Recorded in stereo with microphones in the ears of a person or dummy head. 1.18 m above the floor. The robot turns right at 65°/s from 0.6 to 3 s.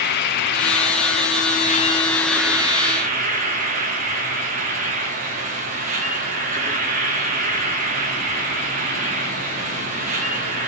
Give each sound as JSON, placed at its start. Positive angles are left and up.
{"t": 0.0, "sound": "an insect", "azimuth_deg": 65, "distance_m": 0.8}